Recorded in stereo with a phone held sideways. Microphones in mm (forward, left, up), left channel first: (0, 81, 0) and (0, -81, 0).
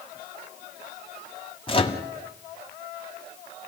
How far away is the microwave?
About 1.7 m.